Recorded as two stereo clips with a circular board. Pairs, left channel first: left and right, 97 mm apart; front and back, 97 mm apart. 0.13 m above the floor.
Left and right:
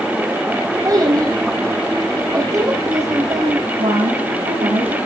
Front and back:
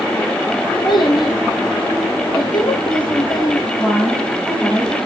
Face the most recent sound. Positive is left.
turn(degrees=-90)